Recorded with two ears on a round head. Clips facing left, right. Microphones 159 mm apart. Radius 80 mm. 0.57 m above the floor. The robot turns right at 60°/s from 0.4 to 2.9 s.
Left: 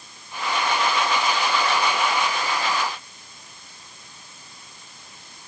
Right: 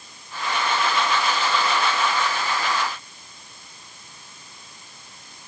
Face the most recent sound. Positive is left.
No sound to turn to.